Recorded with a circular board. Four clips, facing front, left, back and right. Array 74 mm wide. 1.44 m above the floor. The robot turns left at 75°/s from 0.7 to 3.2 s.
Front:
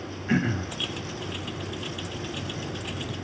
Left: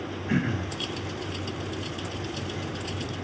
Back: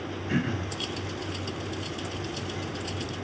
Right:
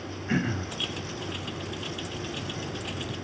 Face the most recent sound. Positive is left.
turn(degrees=170)